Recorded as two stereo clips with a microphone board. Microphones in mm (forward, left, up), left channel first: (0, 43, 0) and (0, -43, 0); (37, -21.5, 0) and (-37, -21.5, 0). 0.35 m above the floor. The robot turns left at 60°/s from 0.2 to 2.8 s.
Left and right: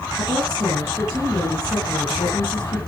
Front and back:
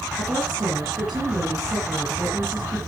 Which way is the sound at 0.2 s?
115° right.